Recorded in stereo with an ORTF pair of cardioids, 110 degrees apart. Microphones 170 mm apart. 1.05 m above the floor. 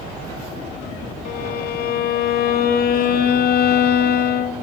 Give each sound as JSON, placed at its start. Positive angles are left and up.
{"t": 1.2, "sound": "a violin", "azimuth_deg": 60, "distance_m": 2.0}